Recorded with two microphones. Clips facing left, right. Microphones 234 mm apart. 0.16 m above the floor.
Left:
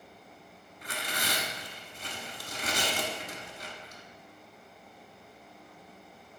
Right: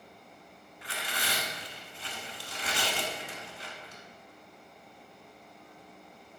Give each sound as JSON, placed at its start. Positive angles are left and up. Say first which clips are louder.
{"t": 0.8, "sound": "tearing paper", "louder": "left 2 dB", "side_deg": 45, "distance_m": 0.6}